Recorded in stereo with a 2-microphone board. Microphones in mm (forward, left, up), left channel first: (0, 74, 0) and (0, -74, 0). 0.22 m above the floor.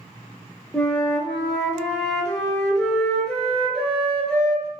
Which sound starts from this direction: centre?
A flute, at 0.7 s.